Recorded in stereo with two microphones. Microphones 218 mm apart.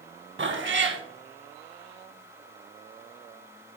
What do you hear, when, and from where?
0.4 s a cat meowing: 60° right (ahead or behind), 1.0 m